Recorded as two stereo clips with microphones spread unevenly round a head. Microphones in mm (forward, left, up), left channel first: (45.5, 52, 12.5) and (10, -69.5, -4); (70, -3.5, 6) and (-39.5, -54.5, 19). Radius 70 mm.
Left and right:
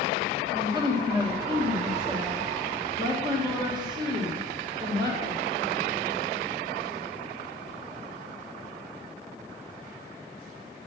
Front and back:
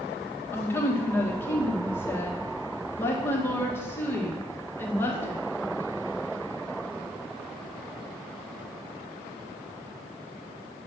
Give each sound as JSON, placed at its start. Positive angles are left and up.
{"t": 0.5, "sound": "a woman speaking", "azimuth_deg": -50, "distance_m": 1.6}